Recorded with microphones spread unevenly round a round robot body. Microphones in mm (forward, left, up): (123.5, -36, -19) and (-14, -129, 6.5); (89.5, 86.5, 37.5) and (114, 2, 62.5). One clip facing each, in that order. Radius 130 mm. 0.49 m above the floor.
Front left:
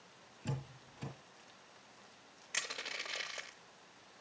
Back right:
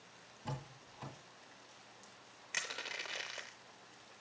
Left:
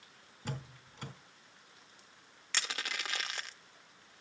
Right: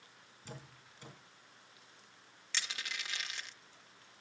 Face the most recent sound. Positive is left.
turn(degrees=125)